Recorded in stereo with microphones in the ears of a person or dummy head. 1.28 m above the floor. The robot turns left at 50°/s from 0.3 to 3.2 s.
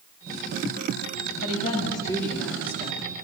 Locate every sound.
1.4 s a woman speaking: 50° left, 2.5 m; by 3.0 s 30° right, 2.5 m